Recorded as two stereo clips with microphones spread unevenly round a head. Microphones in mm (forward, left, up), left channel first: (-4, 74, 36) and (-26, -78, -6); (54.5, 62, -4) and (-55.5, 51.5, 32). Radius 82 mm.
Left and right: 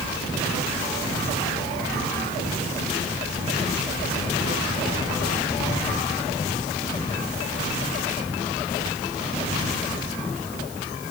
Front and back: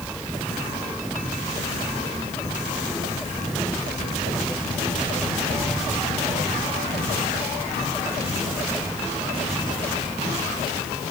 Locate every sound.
Only background noise.